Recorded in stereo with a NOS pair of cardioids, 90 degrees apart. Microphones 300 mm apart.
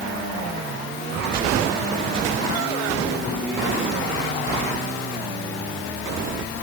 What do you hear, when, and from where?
Only background noise.